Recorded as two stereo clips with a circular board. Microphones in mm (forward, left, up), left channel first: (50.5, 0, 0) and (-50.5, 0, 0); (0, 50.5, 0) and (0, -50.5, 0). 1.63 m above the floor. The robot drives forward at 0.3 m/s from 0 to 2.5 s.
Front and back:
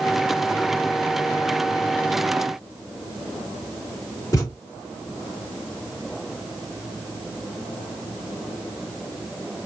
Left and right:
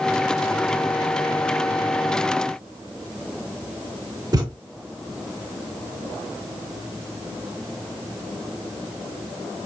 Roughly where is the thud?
Ahead right.